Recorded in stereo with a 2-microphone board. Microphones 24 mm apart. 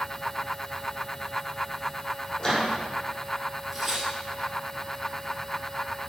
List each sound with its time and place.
2.4 s a microwave: 30° left (ahead or behind), 5 m
3.7 s tearing paper: 5° right (ahead or behind), 3 m